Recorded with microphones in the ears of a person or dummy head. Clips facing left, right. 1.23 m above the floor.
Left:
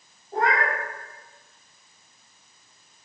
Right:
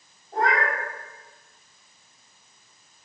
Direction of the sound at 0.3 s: 20° left (ahead or behind).